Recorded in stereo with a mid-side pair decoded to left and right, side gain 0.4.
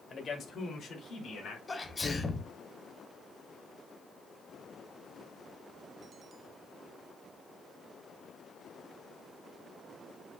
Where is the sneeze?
25° left, 1.1 m.